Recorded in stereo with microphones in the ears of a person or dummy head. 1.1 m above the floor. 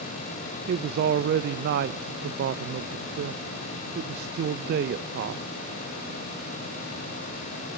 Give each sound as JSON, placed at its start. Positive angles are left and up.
{"t": 0.7, "sound": "a man speaking", "side_deg": -65, "distance_m": 0.6}